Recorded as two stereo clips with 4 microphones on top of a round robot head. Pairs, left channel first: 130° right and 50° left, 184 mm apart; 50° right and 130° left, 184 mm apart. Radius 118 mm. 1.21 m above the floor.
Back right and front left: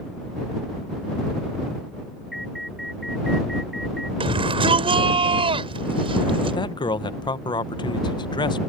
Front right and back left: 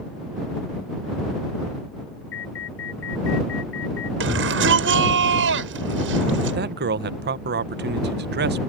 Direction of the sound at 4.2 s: 115° left.